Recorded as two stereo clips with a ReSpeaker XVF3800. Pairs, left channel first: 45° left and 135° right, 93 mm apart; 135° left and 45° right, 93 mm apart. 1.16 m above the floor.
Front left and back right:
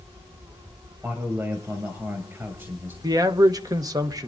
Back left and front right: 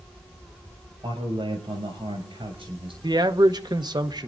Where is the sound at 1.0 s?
70° right, 6.5 m.